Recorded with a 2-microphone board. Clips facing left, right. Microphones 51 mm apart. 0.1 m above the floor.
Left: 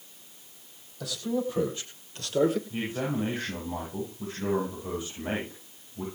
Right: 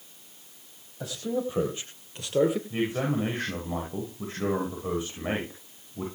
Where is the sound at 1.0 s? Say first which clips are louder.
Even; 30° right (ahead or behind), 4.5 m; by 2.6 s 10° right (ahead or behind), 2.5 m.